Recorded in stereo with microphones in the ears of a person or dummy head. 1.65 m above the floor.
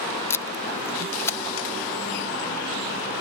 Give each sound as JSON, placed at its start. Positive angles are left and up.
{"t": 0.3, "sound": "tape being pulled", "side_deg": 15}